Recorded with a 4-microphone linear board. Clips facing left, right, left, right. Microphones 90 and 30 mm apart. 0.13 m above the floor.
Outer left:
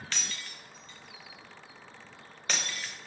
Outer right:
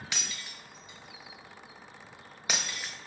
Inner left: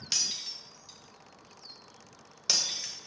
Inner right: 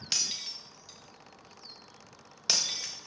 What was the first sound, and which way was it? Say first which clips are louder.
Breaking glass: outer left 1 dB, even; 10° right (ahead or behind).